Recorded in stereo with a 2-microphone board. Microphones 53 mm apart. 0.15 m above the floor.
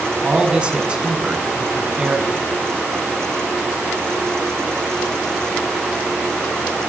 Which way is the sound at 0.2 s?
20° right (ahead or behind).